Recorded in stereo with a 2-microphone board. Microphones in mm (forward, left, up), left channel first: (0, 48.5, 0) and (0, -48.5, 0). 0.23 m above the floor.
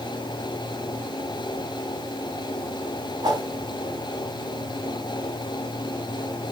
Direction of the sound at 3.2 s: 40° right (ahead or behind).